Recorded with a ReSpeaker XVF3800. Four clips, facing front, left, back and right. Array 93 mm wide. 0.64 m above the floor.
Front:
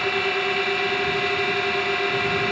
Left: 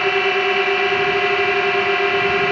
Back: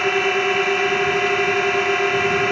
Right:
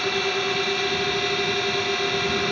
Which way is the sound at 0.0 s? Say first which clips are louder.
Left 7 dB, back 5 dB; 115° left.